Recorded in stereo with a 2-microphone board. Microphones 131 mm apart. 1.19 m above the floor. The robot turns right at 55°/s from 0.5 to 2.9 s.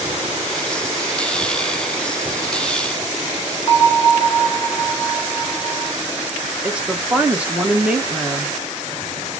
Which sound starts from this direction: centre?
A woman speaking, at 6.6 s.